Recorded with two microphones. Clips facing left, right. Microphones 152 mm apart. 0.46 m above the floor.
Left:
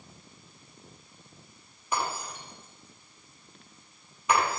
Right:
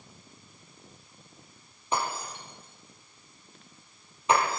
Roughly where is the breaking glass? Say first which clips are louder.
Right 1 dB; right.